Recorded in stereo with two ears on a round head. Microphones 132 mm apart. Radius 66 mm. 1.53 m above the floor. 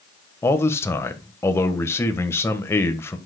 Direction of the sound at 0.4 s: 15° left (ahead or behind).